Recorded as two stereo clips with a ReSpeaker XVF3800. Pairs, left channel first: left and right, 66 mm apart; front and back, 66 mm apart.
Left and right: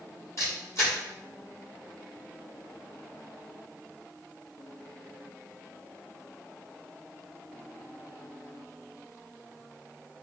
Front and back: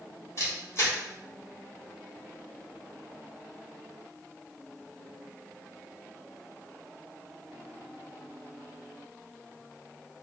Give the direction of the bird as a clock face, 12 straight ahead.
No bird in this recording.